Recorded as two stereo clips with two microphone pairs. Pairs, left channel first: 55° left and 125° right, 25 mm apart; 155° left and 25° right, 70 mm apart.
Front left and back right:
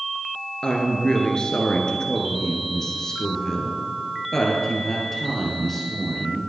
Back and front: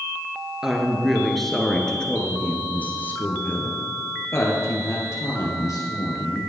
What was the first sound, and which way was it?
A woman speaking, 50° left.